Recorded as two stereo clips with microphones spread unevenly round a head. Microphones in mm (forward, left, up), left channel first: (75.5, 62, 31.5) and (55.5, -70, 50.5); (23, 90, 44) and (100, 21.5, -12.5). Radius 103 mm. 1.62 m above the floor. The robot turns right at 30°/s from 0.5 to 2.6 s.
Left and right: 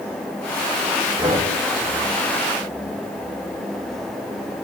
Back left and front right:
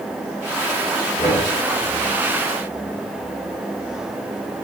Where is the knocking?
160° right, 4 m; by 1.4 s 150° right, 4 m.